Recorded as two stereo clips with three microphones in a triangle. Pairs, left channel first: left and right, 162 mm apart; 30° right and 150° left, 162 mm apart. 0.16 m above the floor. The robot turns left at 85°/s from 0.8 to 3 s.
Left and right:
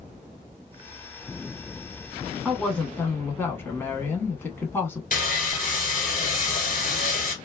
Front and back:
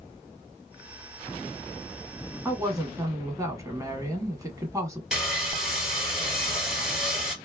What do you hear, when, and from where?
2.5 s a woman speaking: 175° right, 1.0 m; by 5.0 s 135° left, 1.0 m
5.1 s sawing: 65° left, 1.4 m